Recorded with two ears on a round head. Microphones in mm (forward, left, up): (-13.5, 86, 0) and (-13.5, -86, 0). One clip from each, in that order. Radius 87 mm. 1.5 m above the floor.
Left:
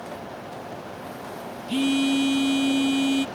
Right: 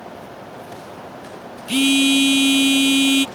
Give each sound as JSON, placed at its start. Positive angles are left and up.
{"t": 1.7, "sound": "a phone buzzing", "side_deg": -50}